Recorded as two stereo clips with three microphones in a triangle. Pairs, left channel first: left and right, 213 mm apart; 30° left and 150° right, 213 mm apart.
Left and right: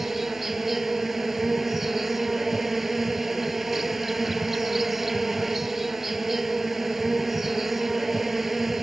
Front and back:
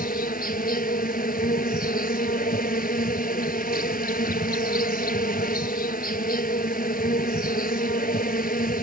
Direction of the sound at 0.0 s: Straight ahead.